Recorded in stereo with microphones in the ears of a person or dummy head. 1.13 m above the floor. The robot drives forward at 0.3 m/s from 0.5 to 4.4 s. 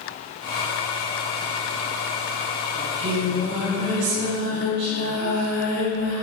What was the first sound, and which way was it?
Singing, 75° right (ahead or behind).